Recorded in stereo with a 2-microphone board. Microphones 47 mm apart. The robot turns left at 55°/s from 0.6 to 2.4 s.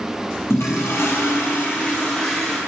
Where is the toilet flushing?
100° left, 2.5 m; by 2.6 s 5° left, 2.5 m.